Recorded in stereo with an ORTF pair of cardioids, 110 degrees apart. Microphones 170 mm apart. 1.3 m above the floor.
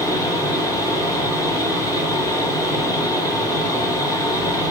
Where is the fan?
20° left, 1.9 m.